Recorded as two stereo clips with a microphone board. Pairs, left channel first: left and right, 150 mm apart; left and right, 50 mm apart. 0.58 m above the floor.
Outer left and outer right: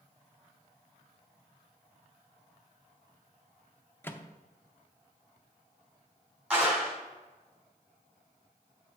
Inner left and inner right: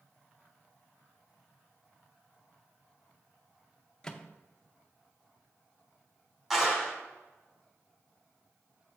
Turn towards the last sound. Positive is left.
turn(degrees=-10)  # may be behind; listen again after turning